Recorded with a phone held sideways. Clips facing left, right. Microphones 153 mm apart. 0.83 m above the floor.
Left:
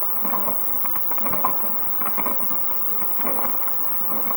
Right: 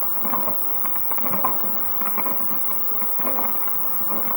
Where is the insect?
20° left (ahead or behind).